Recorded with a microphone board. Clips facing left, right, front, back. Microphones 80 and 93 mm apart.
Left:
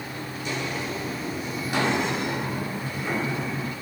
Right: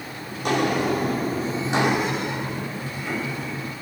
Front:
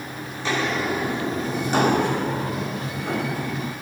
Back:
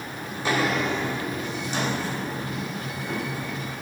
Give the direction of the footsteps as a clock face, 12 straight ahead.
4 o'clock.